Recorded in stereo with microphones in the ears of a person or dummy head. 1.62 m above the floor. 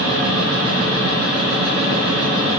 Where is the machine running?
65° right (ahead or behind), 3.5 m.